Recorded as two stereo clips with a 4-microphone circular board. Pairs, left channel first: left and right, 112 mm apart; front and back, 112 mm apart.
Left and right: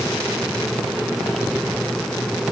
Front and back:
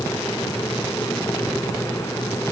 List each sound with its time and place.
Only background noise.